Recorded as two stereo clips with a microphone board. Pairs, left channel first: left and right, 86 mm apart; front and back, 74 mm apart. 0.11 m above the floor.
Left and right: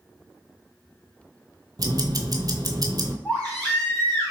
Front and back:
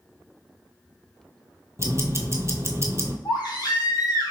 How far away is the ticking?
About 0.7 m.